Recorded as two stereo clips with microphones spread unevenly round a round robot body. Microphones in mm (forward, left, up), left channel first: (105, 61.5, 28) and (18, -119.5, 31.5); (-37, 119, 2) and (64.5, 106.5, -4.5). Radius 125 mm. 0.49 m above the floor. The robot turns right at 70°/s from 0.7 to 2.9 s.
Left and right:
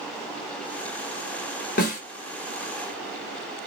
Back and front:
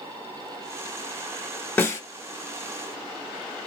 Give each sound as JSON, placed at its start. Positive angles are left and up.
{"t": 1.8, "sound": "a snare drum", "azimuth_deg": 105, "distance_m": 2.5}